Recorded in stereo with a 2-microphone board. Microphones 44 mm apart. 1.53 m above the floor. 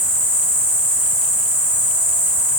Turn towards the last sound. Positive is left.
turn(degrees=-50)  # may be behind; listen again after turning